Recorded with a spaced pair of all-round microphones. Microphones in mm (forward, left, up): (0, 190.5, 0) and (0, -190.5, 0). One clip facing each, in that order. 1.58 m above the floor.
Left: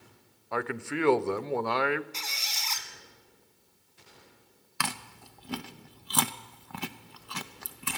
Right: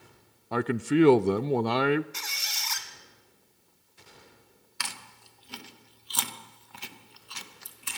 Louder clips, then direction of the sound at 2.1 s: Left 1 dB; 25° right (ahead or behind).